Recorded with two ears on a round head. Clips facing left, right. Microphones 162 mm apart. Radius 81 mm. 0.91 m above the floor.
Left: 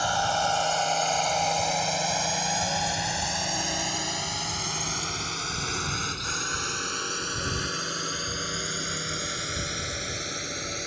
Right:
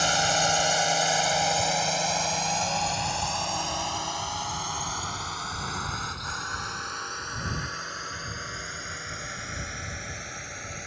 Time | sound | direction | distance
0.0 | a drone | 25° right (ahead or behind) | ?